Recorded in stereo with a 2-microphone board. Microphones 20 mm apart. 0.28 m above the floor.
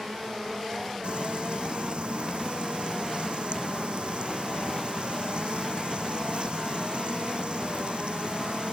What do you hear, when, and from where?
1.0 s frying: 60° right (ahead or behind)